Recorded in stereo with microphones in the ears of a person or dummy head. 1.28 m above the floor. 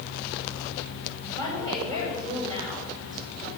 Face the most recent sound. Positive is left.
turn(degrees=-35)  # may be behind; listen again after turning